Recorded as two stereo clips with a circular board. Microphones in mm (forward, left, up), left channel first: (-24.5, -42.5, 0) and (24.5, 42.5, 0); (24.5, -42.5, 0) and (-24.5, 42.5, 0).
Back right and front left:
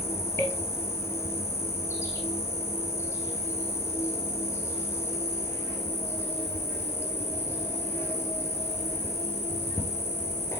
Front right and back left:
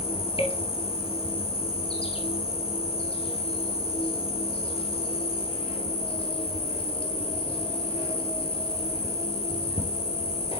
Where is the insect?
60° right, 1.7 m.